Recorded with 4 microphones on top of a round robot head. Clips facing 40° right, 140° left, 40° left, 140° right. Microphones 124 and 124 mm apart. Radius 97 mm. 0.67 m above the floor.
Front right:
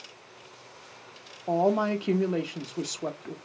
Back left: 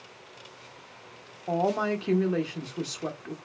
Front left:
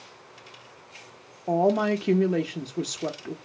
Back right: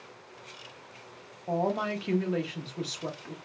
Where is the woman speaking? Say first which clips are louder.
Front right 2 dB, front left 7 dB; 30° left, 0.7 m.